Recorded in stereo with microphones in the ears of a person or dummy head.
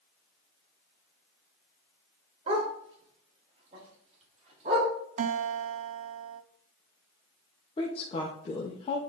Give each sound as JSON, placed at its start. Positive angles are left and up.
{"t": 2.5, "sound": "a dog barking", "side_deg": -35, "distance_m": 2.5}
{"t": 5.2, "sound": "a guitar", "side_deg": -50, "distance_m": 0.6}
{"t": 7.8, "sound": "a woman speaking", "side_deg": 35, "distance_m": 1.5}